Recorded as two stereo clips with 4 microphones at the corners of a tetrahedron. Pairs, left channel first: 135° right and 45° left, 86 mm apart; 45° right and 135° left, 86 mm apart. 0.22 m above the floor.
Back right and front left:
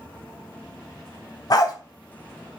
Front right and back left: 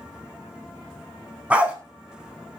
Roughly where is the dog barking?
Behind right.